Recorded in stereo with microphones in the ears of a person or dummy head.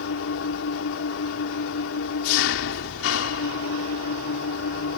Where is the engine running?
80° left.